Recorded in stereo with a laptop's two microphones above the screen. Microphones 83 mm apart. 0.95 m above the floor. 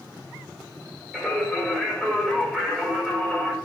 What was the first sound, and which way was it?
Singing, centre (ahead or behind).